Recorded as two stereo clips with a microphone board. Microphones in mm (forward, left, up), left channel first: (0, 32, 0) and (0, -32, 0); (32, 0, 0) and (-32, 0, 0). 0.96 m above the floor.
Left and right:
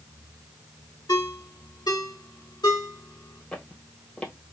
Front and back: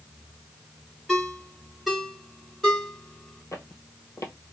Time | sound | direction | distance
1.1 | a ringtone | 90° left | 1.8 m
3.5 | footsteps | 20° left | 1.4 m